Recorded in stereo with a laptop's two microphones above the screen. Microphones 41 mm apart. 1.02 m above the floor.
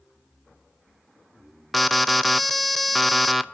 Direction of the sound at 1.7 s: Centre (ahead or behind).